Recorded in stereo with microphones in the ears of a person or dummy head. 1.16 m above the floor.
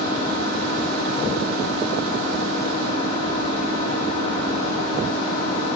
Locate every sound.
0.0 s an engine running: 50° left (ahead or behind), 3 m